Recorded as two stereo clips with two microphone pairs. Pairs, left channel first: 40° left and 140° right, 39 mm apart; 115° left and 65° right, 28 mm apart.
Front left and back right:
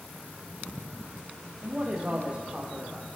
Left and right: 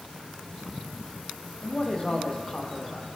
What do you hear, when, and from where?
1.6 s a man speaking: 165° left, 3 m